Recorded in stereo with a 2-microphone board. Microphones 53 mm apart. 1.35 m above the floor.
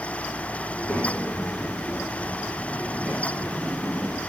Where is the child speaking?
35° left (ahead or behind), 5 m; by 4.2 s 20° right (ahead or behind), 4 m.